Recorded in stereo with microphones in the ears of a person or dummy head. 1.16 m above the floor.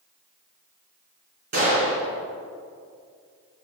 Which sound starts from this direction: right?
A gunshot, at 1.5 s.